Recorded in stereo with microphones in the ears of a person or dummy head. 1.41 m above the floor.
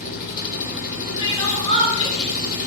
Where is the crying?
30° left (ahead or behind), 8.5 m.